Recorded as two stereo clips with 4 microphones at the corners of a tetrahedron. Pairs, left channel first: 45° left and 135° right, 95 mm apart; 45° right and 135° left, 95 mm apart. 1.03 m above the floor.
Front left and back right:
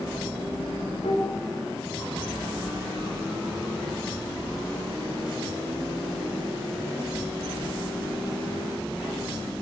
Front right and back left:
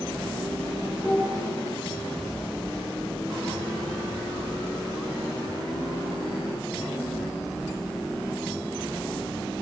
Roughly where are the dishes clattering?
Ahead left.